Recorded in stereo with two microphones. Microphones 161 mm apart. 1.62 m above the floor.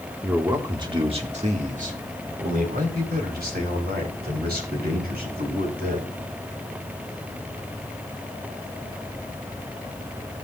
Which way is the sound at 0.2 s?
10° right (ahead or behind).